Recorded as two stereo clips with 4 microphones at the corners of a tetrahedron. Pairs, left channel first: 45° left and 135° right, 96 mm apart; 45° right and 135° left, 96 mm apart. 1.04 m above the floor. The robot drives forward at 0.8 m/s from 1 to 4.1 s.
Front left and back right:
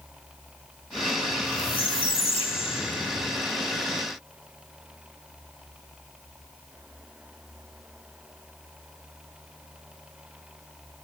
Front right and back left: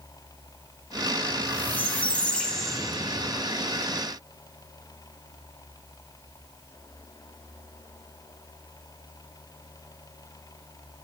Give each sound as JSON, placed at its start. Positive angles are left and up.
{"t": 1.3, "sound": "a squeak", "azimuth_deg": 20, "distance_m": 2.0}